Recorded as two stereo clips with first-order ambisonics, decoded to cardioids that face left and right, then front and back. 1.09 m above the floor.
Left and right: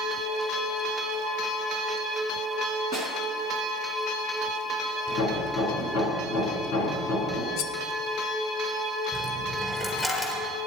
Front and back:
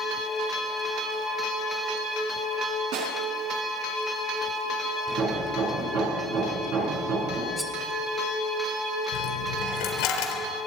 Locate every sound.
2.9 s a snare drum: 160° left, 4.5 m
5.1 s hammering: 135° left, 7 m
7.6 s cutlery clinking: 90° left, 1.1 m
9.1 s a dropped coin: 10° left, 4 m